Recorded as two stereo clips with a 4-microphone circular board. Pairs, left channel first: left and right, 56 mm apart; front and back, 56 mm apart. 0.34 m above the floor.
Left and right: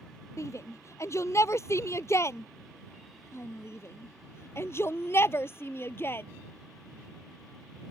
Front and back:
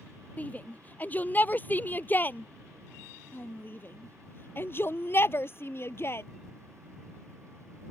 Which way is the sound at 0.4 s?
60° left.